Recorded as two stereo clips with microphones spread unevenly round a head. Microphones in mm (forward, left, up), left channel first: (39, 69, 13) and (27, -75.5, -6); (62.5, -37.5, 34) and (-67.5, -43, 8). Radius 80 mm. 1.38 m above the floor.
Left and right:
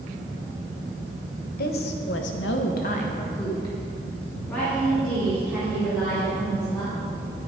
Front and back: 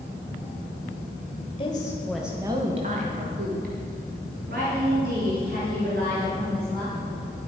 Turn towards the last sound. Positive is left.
turn(degrees=180)